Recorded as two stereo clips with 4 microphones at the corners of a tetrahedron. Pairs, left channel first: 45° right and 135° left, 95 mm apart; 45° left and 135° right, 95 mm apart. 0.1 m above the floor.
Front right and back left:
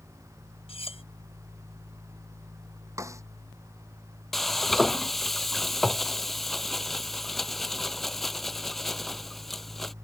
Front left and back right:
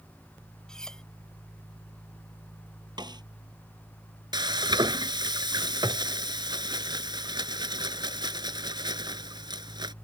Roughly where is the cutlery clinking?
Ahead right.